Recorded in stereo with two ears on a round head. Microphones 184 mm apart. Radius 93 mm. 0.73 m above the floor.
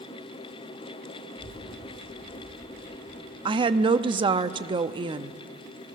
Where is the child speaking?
65° right (ahead or behind), 4.5 m.